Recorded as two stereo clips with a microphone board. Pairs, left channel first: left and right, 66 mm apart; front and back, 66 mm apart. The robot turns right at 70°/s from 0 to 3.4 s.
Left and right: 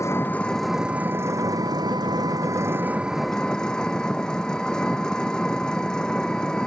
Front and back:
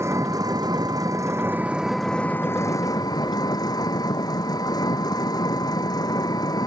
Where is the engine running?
130° left; by 6.7 s 10° left.